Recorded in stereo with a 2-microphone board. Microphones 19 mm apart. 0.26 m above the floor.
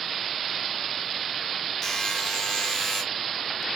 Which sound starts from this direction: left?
A buzzer, at 1.8 s.